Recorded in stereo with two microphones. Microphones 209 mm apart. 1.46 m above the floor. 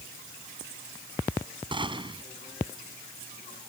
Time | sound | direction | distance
1.7 | a gunshot | 25° right (ahead or behind) | ?